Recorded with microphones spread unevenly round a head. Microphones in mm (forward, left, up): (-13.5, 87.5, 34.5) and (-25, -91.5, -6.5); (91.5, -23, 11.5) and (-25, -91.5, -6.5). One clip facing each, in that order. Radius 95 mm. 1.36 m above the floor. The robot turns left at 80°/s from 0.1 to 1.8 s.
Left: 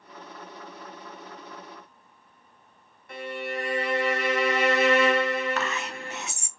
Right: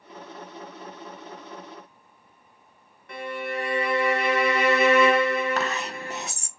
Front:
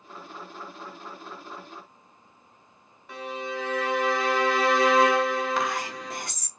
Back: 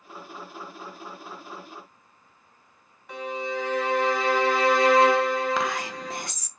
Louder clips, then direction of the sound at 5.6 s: Right 2 dB, back 1 dB; 155° right.